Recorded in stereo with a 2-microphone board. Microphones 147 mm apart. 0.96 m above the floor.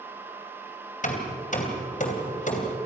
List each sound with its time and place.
1.0 s hammering: 60° left (ahead or behind), 2.5 m